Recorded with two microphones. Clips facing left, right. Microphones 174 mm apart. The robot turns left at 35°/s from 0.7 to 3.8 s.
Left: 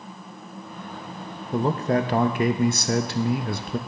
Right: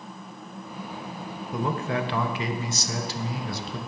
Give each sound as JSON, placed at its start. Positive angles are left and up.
{"t": 1.5, "sound": "a man speaking", "azimuth_deg": 145, "distance_m": 0.6}